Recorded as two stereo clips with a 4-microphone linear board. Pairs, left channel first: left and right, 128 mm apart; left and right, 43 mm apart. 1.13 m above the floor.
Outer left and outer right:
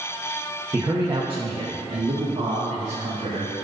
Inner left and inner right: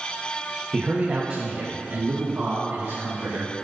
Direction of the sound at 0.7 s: 20° right (ahead or behind).